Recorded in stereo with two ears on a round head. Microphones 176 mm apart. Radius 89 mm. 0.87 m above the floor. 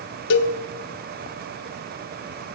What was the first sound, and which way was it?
A cowbell, 65° left (ahead or behind).